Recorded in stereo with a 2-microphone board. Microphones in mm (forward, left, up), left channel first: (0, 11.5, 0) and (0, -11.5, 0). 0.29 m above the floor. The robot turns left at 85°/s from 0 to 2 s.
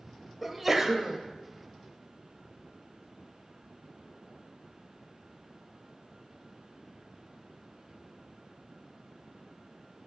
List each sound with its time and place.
0.4 s a sneeze: centre (ahead or behind), 1.1 m; by 1.2 s 20° right (ahead or behind), 1.1 m